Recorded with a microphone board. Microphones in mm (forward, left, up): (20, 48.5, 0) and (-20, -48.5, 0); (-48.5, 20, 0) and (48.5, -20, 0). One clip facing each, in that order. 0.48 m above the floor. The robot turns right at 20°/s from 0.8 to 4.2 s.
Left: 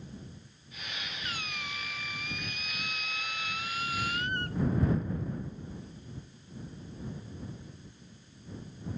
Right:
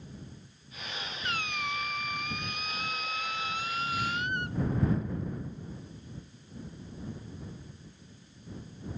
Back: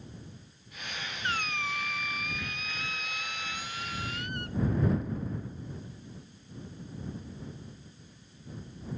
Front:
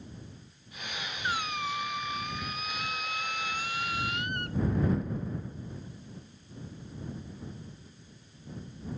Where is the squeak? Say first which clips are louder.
Right 8 dB, front 1 dB; 105° right; by 4.6 s 45° right.